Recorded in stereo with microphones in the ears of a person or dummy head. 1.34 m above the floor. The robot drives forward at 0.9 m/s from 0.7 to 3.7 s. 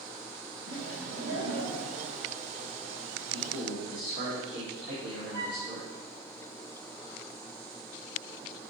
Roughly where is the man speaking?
Right.